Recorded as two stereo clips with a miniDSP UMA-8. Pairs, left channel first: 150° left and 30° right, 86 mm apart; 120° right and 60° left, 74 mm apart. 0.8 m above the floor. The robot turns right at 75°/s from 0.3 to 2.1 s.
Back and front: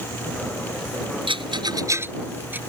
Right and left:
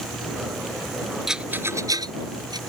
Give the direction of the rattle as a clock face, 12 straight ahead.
1 o'clock.